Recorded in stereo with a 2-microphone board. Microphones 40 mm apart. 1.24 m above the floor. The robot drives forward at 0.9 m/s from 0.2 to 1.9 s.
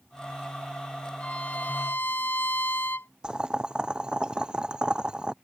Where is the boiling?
20° right (ahead or behind).